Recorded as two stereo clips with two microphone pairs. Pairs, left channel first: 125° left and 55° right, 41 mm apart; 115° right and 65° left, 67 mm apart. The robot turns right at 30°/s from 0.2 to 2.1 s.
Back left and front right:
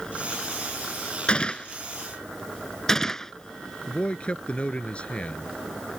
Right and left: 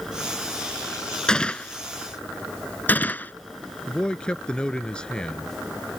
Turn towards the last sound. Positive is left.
turn(degrees=170)